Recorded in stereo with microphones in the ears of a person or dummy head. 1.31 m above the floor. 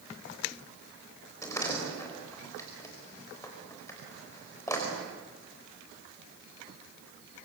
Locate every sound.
1.4 s a door slam: 10° left (ahead or behind), 4.5 m